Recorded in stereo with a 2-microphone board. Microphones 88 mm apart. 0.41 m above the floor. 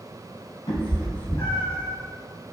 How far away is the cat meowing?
About 0.7 m.